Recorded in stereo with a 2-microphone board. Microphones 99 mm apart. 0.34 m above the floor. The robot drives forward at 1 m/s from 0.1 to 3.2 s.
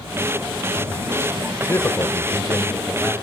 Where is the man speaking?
25° left (ahead or behind), 1.0 m; by 3.1 s 15° left (ahead or behind), 1.6 m.